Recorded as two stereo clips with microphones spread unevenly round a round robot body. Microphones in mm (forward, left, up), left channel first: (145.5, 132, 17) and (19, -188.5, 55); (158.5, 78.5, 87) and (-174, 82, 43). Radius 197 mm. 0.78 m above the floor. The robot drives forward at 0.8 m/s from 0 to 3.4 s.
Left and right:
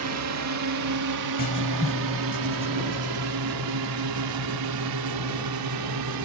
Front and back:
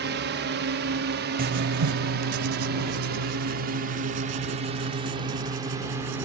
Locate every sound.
0.0 s a drone: 145° right; by 6.2 s 100° right
1.4 s writing: 120° left; by 6.2 s 170° left